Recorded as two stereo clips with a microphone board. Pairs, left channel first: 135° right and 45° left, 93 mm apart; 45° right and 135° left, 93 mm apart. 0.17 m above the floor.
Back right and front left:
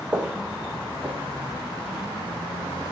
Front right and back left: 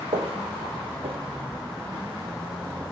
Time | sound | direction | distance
0.1 | footsteps | 120° left | 2.5 m